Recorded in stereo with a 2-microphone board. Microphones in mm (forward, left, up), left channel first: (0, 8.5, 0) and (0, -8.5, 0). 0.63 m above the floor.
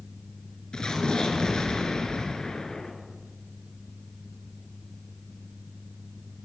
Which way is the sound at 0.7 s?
45° left (ahead or behind).